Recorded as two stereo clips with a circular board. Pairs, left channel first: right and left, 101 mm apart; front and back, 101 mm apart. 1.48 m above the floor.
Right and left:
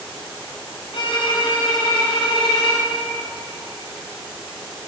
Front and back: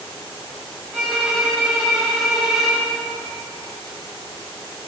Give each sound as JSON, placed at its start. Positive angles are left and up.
{"t": 0.9, "sound": "a violin", "azimuth_deg": -95, "distance_m": 3.5}